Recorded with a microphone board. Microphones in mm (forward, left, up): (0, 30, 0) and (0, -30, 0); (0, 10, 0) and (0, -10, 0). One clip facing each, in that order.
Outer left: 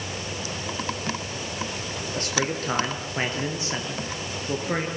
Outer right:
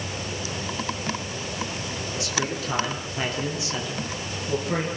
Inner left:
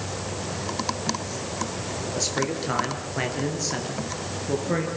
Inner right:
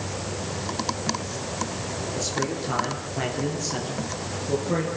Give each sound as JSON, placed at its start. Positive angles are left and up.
{"t": 2.1, "sound": "a man speaking", "side_deg": 45, "distance_m": 6.0}